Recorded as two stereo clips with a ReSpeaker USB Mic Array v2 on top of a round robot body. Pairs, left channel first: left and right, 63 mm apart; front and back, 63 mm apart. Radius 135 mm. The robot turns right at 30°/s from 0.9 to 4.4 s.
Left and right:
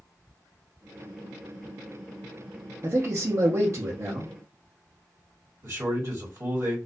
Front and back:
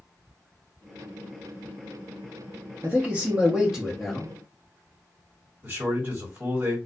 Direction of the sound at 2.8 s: 130° right.